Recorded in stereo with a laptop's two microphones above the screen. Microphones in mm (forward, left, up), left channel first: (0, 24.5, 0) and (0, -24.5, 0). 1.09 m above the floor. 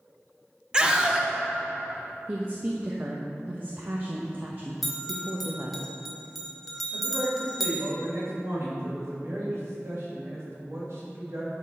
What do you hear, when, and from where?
0.7 s a scream: 15° right (ahead or behind), 0.9 m
2.3 s a woman speaking: 40° right (ahead or behind), 0.9 m
4.8 s a bell: centre (ahead or behind), 1.2 m
6.9 s a man speaking: 65° right (ahead or behind), 2 m